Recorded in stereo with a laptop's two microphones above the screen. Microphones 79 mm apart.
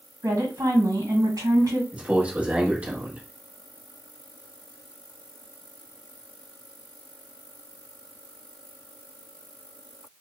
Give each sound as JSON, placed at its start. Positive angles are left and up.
{"t": 0.2, "sound": "a woman speaking", "side_deg": -45, "distance_m": 1.7}
{"t": 1.9, "sound": "a man speaking", "side_deg": -15, "distance_m": 1.1}